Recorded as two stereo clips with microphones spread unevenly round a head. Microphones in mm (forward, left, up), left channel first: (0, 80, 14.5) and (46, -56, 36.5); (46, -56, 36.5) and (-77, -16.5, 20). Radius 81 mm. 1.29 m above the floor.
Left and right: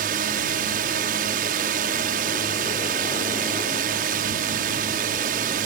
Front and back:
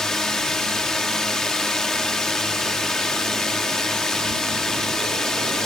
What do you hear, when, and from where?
0.0 s a drone: 105° right